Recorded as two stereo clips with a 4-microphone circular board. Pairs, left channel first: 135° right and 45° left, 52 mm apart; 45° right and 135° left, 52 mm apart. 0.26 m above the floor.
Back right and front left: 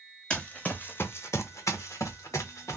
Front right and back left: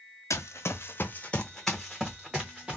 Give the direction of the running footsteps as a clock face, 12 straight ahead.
2 o'clock.